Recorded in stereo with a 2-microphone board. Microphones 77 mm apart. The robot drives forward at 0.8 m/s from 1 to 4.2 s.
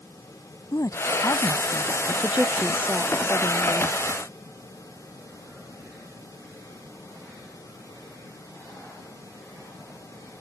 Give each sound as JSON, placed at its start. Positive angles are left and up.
{"t": 0.7, "sound": "a woman speaking", "side_deg": 50}
{"t": 2.2, "sound": "a woman speaking", "side_deg": -20}